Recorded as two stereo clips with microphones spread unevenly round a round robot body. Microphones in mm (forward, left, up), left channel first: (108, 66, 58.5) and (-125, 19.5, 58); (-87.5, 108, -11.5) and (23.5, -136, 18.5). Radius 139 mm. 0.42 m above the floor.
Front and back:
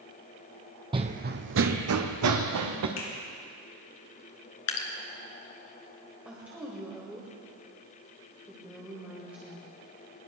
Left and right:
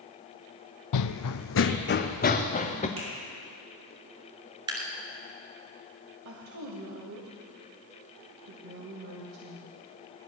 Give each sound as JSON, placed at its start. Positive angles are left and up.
{"t": 0.9, "sound": "running footsteps", "azimuth_deg": 120, "distance_m": 0.8}
{"t": 3.0, "sound": "a finger snap", "azimuth_deg": 5, "distance_m": 6.0}
{"t": 4.7, "sound": "dripping", "azimuth_deg": 10, "distance_m": 2.5}
{"t": 6.2, "sound": "a woman speaking", "azimuth_deg": -85, "distance_m": 2.0}